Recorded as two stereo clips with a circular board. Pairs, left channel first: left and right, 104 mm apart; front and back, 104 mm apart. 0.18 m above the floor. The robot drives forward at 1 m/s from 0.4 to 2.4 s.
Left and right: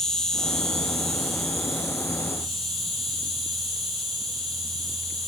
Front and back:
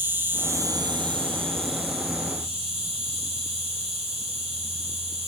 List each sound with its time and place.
0.0 s an insect: 165° left, 0.8 m; by 5.3 s straight behind, 2.5 m